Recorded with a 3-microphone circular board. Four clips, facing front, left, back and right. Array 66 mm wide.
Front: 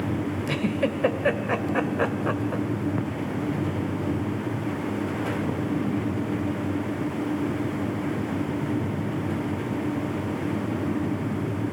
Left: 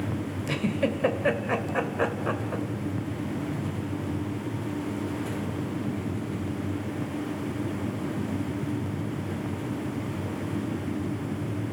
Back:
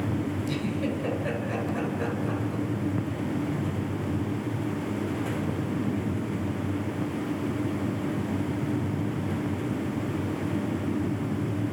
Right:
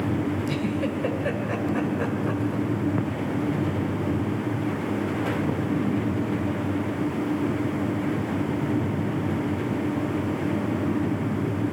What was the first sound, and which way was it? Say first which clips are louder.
A giggle: right 1 dB, front 4 dB; 30° left.